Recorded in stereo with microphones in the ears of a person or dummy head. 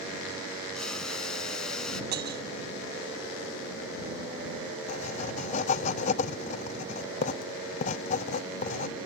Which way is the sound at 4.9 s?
45° left (ahead or behind).